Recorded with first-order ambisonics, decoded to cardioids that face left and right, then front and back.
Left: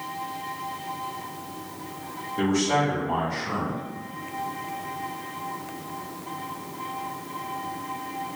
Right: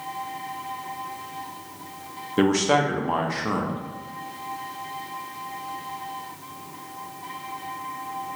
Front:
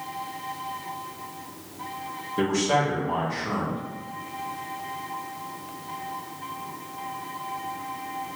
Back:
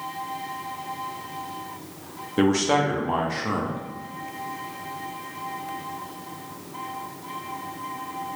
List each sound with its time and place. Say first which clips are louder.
2.4 s a man speaking: right 3 dB, back 2 dB; 120° right, 0.7 m